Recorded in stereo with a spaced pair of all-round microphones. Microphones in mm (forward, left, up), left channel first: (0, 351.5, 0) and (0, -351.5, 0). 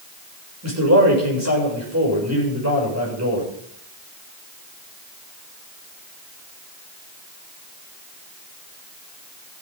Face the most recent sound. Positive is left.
turn(degrees=-20)  # may be behind; listen again after turning